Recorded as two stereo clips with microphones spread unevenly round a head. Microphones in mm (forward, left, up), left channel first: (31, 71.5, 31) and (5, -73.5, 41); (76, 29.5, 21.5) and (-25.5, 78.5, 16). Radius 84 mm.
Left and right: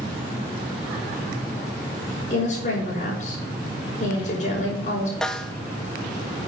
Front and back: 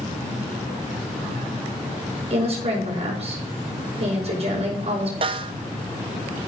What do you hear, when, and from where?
2.3 s a woman speaking: 125° left, 5 m
5.2 s a snare drum: 170° left, 0.6 m